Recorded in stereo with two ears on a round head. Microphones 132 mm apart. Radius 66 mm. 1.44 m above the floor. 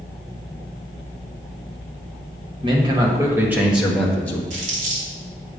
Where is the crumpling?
60° right (ahead or behind), 2.5 m.